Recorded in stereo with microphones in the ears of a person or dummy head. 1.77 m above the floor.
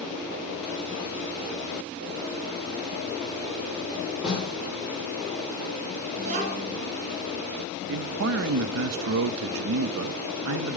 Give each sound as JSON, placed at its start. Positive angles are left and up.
{"t": 4.2, "sound": "a snare drum", "side_deg": -5, "distance_m": 5.0}
{"t": 6.2, "sound": "a child speaking", "side_deg": -40, "distance_m": 2.5}
{"t": 7.9, "sound": "a man speaking", "side_deg": -70, "distance_m": 0.5}